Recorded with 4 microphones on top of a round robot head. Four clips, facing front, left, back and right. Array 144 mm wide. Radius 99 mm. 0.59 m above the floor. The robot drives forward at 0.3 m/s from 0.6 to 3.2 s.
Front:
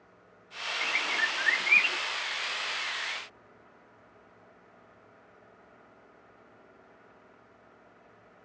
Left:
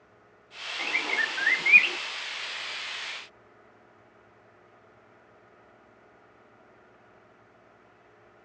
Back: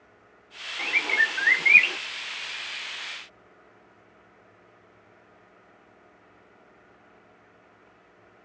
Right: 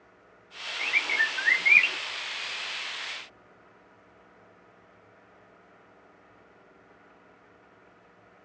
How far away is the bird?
About 0.7 m.